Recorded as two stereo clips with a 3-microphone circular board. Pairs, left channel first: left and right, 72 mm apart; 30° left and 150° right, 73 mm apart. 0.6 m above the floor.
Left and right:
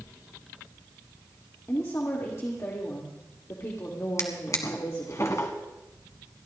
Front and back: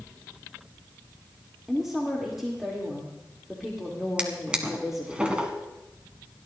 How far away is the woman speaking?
About 1.6 m.